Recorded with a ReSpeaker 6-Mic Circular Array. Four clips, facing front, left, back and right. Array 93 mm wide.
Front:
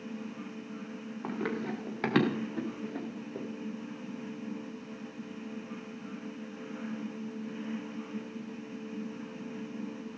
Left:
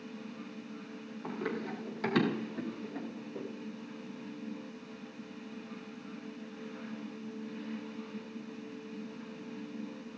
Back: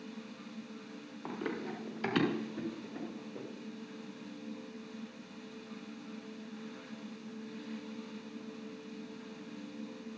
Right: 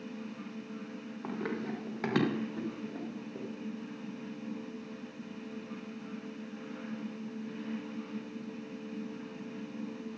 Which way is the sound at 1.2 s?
20° right.